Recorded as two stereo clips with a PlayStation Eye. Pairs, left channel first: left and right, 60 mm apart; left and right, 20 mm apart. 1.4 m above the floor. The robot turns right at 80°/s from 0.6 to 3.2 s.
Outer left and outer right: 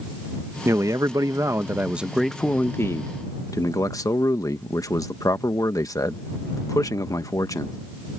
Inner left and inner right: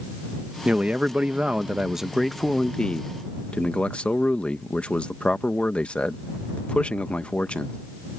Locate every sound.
0.7 s a man speaking: 125° right; by 7.8 s 80° left